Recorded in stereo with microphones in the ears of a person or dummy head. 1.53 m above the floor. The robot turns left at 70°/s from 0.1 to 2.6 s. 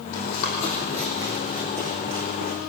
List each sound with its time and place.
0.1 s running footsteps: 75° left (ahead or behind), 5 m; by 2.6 s 75° right (ahead or behind), 6.5 m